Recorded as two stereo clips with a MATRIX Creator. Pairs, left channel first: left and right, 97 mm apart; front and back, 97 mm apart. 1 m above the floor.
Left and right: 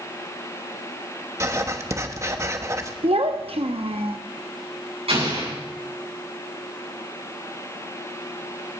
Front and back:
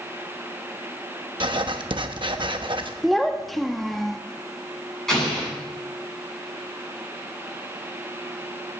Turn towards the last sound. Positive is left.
turn(degrees=-85)